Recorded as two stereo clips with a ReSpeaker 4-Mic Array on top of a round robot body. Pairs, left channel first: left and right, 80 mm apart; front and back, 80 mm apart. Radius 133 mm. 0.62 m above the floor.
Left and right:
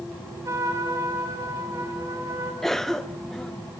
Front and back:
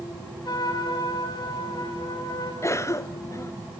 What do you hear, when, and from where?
0.5 s a trumpet: 40° right, 4.5 m
2.6 s a cough: 5° left, 1.3 m